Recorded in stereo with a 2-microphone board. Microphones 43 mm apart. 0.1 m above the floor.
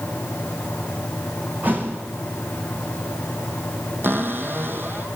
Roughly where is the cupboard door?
Right.